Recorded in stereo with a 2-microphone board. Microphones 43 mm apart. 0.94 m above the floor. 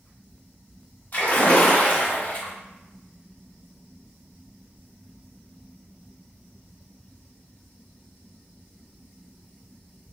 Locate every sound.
1.1 s a splash: 40° left (ahead or behind), 0.8 m